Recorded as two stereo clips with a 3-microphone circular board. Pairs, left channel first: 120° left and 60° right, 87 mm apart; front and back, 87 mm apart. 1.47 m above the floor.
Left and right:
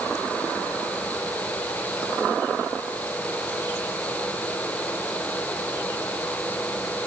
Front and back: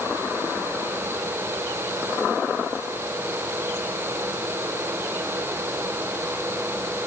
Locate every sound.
Only background noise.